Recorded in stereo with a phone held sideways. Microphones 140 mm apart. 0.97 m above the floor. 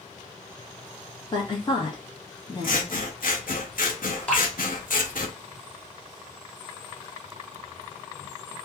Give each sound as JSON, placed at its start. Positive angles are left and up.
{"t": 1.3, "sound": "a woman speaking", "side_deg": 35, "distance_m": 1.2}
{"t": 2.6, "sound": "scissors", "side_deg": 80, "distance_m": 0.6}
{"t": 4.3, "sound": "dripping", "side_deg": 10, "distance_m": 1.1}